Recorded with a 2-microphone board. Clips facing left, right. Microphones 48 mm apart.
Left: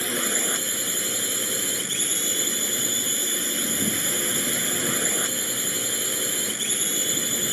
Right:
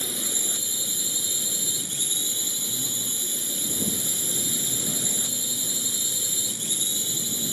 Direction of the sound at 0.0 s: 55° left (ahead or behind).